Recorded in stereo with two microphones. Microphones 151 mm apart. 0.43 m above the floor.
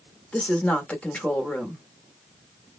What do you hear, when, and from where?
0.3 s a woman speaking: 10° left (ahead or behind), 1.0 m